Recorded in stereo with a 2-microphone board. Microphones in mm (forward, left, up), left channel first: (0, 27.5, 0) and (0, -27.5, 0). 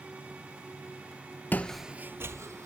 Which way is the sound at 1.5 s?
35° left (ahead or behind).